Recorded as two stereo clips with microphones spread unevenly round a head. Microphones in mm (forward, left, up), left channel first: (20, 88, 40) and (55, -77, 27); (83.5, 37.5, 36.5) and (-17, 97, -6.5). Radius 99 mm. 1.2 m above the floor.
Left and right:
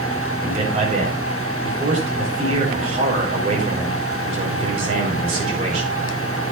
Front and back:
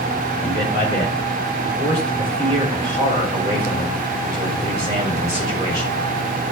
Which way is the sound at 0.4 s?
140° right.